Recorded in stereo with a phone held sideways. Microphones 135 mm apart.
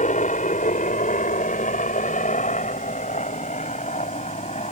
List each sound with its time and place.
0.0 s a helicopter: 65° left (ahead or behind); by 4.7 s 55° left (ahead or behind)